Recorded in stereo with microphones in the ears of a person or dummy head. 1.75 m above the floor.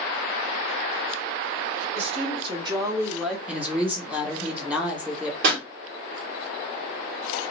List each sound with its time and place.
1.9 s a woman speaking: 40° right (ahead or behind), 1.7 m; by 3.4 s centre (ahead or behind), 1.0 m
3.5 s a woman speaking: 10° right (ahead or behind), 1.5 m
5.4 s a pop: 65° right (ahead or behind), 1.6 m